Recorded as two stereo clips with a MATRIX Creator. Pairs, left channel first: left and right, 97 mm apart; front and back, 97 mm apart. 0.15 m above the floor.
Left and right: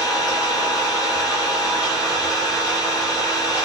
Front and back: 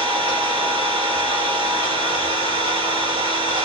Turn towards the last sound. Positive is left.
turn(degrees=135)